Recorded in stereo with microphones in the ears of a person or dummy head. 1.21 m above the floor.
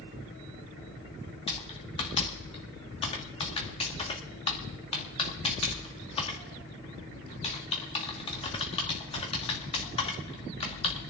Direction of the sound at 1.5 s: 35° left (ahead or behind).